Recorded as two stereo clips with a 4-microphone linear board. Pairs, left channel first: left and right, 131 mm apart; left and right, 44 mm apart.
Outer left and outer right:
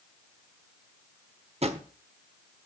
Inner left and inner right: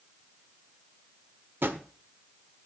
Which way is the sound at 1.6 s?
50° right (ahead or behind).